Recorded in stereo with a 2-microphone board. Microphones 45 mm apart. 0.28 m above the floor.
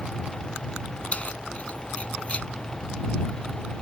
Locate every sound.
1.1 s keys jangling: 30° left (ahead or behind)